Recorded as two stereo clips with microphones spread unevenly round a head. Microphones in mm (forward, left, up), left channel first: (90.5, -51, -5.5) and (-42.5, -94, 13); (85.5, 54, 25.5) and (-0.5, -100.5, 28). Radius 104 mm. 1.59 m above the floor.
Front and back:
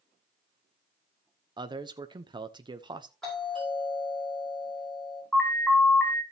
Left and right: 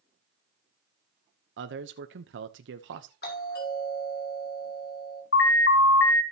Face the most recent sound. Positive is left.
turn(degrees=105)